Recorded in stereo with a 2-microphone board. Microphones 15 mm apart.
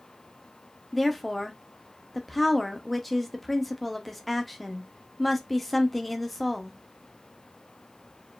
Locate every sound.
0.9 s a woman speaking: 5° left (ahead or behind), 1.2 m